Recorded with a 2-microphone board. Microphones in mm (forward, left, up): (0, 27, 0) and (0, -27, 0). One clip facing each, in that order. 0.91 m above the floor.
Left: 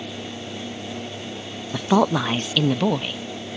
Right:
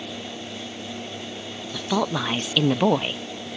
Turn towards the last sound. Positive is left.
turn(degrees=-30)  # may be behind; listen again after turning